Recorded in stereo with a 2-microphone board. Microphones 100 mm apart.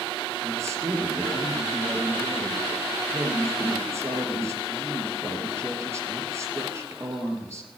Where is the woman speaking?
25° right (ahead or behind), 3 m.